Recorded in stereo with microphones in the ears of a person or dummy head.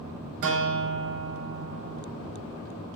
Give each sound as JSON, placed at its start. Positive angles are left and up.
{"t": 0.4, "sound": "a guitar", "side_deg": -50, "distance_m": 0.8}